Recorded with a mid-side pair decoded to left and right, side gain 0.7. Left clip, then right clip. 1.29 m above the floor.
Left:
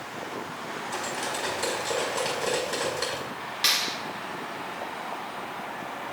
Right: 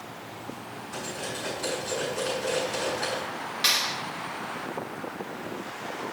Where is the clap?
10° left, 3 m.